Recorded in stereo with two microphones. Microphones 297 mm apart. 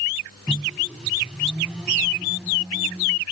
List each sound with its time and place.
0.5 s a microwave: centre (ahead or behind)